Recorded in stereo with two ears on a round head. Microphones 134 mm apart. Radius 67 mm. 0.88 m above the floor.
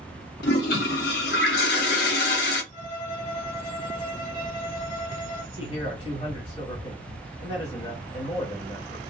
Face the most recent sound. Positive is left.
turn(degrees=35)  # may be behind; listen again after turning